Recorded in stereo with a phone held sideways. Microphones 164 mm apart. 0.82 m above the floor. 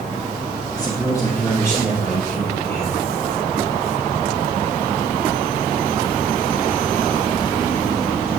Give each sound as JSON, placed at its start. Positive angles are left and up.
{"t": 0.8, "sound": "a man speaking", "side_deg": 25, "distance_m": 1.5}